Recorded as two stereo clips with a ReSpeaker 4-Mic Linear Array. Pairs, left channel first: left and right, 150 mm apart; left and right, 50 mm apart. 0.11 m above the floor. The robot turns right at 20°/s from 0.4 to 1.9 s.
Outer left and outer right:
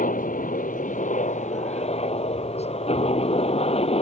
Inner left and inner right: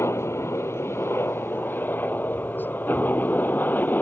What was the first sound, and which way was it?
A helicopter, 65° left (ahead or behind).